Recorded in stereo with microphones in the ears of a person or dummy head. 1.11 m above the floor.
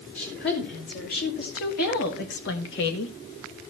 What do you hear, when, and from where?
0.1 s a woman speaking: 55° left (ahead or behind), 4 m; by 3.1 s 65° left (ahead or behind), 1.3 m